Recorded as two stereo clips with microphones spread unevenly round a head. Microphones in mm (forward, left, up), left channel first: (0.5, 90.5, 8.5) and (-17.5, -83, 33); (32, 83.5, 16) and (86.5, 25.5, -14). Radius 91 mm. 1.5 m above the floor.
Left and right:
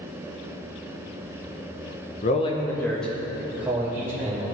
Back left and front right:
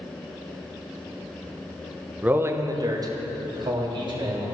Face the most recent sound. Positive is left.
turn(degrees=-20)